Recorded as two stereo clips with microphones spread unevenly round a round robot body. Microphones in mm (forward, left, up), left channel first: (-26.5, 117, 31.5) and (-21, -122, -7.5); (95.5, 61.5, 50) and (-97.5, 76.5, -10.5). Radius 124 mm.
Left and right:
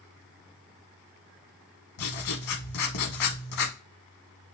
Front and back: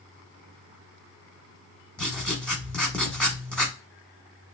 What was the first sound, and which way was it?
Writing, 80° left.